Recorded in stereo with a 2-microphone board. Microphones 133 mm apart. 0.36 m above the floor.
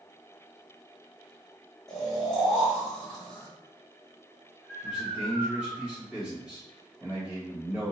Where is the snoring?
5° left (ahead or behind), 1.8 m.